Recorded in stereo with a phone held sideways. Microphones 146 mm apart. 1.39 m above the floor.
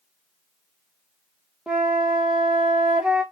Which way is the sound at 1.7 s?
5° right (ahead or behind).